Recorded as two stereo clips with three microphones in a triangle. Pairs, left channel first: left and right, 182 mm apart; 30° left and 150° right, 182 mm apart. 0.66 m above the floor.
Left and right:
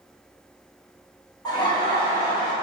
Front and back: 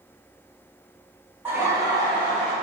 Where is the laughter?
140° left, 1.0 m; by 2.5 s 155° left, 1.5 m.